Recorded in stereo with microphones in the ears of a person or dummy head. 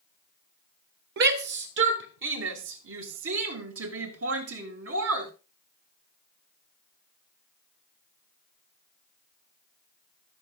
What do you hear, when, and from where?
1.2 s a shout: 60° right (ahead or behind), 1.8 m; by 5.3 s 90° right, 3.5 m